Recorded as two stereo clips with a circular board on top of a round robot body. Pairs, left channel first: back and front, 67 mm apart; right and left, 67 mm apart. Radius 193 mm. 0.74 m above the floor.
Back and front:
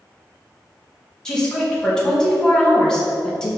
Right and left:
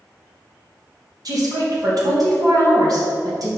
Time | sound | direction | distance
1.2 | a woman speaking | 100° left | 2.5 m